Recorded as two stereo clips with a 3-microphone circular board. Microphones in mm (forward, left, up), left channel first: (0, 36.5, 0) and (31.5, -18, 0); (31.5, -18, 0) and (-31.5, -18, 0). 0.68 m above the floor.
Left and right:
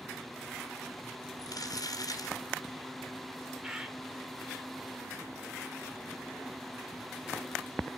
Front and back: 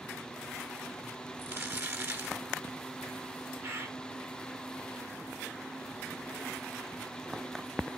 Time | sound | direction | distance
1.4 | crumpling | 130° left | 3.5 m
3.6 | a bird | 135° right | 2.5 m